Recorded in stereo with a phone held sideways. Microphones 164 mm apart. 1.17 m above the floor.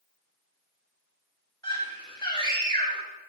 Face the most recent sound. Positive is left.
turn(degrees=20)  # may be behind; listen again after turning